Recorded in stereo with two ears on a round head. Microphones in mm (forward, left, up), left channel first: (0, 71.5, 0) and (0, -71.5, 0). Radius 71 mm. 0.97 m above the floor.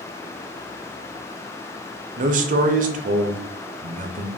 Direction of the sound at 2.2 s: 50° right (ahead or behind).